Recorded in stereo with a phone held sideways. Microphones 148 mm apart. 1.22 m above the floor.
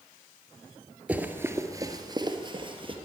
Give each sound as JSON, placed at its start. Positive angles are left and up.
{"t": 1.1, "sound": "running footsteps", "side_deg": -10, "distance_m": 1.2}